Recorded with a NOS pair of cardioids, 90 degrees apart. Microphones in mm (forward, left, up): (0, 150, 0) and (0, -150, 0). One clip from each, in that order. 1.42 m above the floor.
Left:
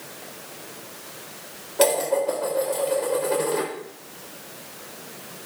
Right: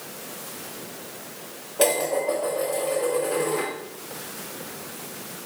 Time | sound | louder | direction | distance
1.8 | dishes clattering | left 2 dB | 30° left | 3.5 m